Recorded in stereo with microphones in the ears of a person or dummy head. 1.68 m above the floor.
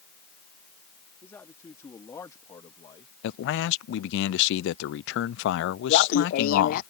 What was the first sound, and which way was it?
A man speaking, 15° left (ahead or behind).